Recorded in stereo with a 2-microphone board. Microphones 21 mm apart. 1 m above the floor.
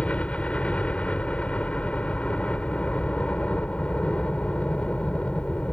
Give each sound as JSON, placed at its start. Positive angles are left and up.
{"t": 0.0, "sound": "a helicopter", "side_deg": 65}